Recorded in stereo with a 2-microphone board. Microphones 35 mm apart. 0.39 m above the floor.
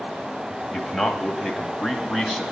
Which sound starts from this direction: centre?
A man speaking, at 0.7 s.